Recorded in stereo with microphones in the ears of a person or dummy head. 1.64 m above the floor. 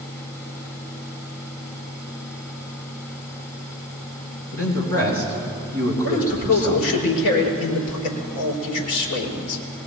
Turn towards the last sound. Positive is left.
turn(degrees=70)  # may be behind; listen again after turning